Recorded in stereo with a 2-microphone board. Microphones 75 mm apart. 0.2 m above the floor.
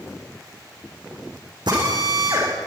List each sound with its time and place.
1.7 s a drill: 75° right (ahead or behind), 9 m